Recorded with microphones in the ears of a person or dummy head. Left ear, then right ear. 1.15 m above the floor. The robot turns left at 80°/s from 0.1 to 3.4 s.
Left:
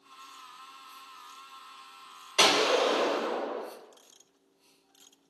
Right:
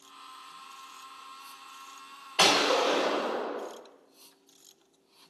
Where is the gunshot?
120° left, 1.1 m; by 3.6 s 35° left, 1.1 m.